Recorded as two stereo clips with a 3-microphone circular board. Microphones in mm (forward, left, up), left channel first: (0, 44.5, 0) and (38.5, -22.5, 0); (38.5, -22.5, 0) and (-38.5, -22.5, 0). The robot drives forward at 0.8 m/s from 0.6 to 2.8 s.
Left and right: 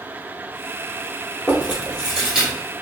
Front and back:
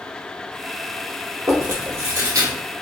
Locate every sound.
1.5 s chewing: 130° right, 1.8 m; by 2.5 s 145° right, 2.5 m